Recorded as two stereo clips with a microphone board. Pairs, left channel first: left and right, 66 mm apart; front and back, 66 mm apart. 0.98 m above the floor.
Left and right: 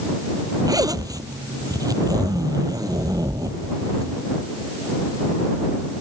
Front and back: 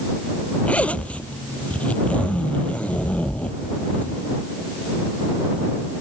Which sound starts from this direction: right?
A zipper, at 0.7 s.